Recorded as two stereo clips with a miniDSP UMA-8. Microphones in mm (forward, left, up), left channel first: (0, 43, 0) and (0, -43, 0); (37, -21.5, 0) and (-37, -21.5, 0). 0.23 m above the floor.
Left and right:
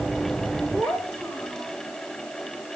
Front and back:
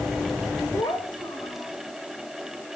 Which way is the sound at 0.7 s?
10° left.